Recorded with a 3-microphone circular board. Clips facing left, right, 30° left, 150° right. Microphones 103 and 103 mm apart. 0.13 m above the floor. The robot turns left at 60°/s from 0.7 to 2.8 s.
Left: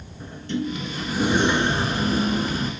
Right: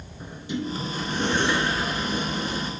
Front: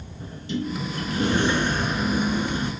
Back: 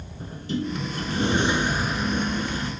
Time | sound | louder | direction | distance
0.2 | a sliding door | left 3 dB, back 1 dB | 160° right | 0.7 m